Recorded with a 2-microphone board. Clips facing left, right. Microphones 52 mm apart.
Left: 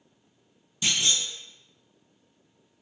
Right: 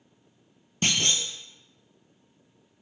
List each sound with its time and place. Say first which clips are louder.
0.8 s a clunk: right 1 dB; 50° right (ahead or behind), 0.6 m